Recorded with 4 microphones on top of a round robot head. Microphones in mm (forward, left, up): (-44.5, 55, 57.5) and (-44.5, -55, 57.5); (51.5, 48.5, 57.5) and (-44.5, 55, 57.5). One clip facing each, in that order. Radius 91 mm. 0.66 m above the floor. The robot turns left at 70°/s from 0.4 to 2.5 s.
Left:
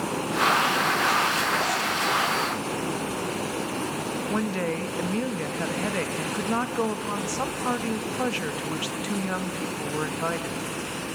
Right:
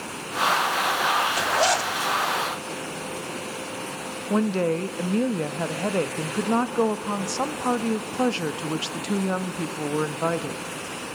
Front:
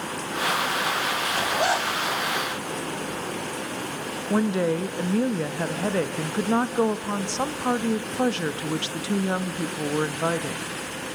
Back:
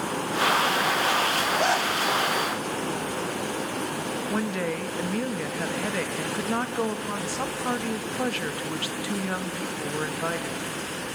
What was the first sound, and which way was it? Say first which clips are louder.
A zipper: right 3 dB, even; 65° right.